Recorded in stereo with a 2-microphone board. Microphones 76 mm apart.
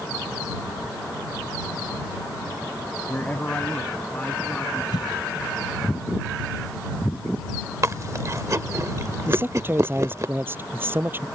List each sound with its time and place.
3.1 s a man speaking: 25° left (ahead or behind); by 4.8 s 15° left (ahead or behind)
4.9 s a cough: 65° left (ahead or behind)
7.8 s chewing: 40° right (ahead or behind)
9.3 s a man speaking: 30° right (ahead or behind)